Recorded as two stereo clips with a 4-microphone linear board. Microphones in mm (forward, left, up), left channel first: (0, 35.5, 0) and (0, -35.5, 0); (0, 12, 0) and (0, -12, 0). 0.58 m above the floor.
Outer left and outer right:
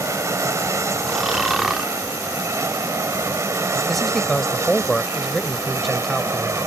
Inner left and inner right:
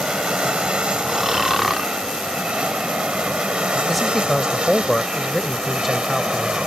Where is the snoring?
5° right (ahead or behind).